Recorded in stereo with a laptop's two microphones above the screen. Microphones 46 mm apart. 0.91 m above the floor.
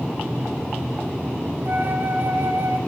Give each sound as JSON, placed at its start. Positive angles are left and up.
{"t": 1.6, "sound": "a flute", "side_deg": -45, "distance_m": 1.6}